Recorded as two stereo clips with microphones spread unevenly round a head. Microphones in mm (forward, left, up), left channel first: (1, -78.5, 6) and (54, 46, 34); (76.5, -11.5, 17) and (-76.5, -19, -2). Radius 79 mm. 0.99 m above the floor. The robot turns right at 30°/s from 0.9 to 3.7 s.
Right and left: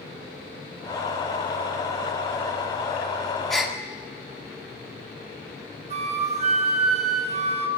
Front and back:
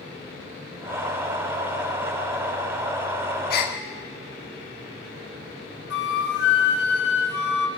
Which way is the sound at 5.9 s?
25° left.